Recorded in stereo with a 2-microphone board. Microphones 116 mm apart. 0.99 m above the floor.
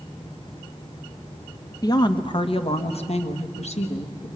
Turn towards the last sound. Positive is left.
turn(degrees=70)  # may be behind; listen again after turning